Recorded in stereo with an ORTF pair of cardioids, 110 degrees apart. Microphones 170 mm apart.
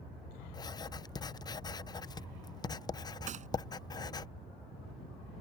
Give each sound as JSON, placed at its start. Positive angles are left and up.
{"t": 0.5, "sound": "writing", "azimuth_deg": 25}
{"t": 3.3, "sound": "a gunshot", "azimuth_deg": -45}